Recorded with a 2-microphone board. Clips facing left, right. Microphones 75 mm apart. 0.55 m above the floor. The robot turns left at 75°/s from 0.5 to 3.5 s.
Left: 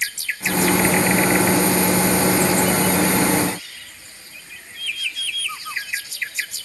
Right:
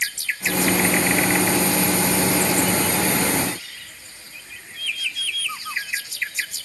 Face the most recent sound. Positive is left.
No sound to turn to.